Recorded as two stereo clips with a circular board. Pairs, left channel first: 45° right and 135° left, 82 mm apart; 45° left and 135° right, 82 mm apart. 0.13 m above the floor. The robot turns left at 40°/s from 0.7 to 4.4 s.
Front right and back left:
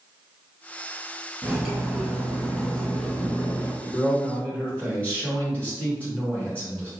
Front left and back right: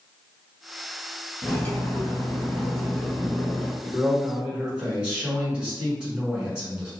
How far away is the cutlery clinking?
About 0.7 m.